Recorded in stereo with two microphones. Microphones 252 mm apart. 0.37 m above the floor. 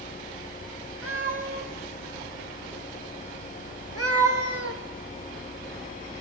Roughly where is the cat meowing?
Right.